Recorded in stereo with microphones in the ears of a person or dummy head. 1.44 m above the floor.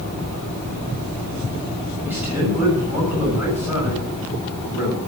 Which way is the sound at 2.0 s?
15° right (ahead or behind).